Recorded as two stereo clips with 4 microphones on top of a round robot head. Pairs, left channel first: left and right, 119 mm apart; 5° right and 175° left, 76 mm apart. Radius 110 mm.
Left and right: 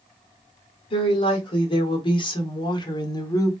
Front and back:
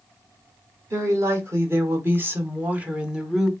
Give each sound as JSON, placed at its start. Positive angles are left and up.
{"t": 0.9, "sound": "a woman speaking", "azimuth_deg": 130, "distance_m": 1.9}